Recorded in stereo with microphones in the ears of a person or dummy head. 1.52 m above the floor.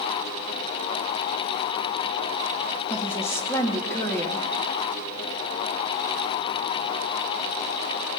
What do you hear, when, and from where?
2.9 s a woman speaking: 15° left (ahead or behind), 2 m